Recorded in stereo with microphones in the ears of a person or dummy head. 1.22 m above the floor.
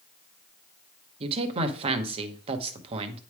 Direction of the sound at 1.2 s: 35° right (ahead or behind).